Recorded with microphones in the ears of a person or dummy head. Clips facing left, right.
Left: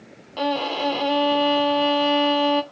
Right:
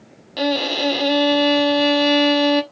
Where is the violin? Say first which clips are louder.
Right 3 dB; 25° right (ahead or behind), 0.9 m.